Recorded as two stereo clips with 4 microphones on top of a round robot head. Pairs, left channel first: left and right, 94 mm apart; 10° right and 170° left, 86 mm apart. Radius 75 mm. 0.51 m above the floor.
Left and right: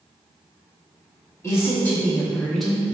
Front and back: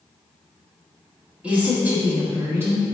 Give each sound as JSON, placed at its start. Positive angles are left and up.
{"t": 1.4, "sound": "a woman speaking", "azimuth_deg": 105, "distance_m": 1.3}